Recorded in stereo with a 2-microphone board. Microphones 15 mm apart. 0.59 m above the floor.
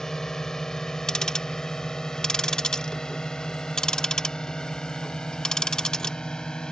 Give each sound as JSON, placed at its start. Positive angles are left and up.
{"t": 0.0, "sound": "a drone", "side_deg": 40}
{"t": 1.1, "sound": "ticking", "side_deg": 50}